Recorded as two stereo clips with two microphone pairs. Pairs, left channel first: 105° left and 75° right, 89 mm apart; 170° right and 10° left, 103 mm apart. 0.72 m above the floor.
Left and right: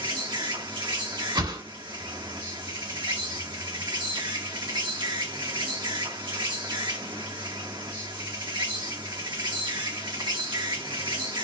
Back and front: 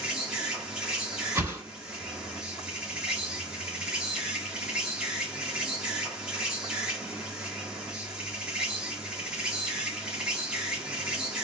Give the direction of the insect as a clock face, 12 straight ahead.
2 o'clock.